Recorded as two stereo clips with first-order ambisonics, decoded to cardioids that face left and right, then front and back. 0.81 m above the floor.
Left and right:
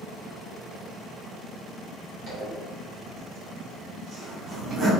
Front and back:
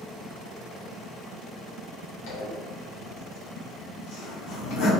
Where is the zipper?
25° right, 1.1 m.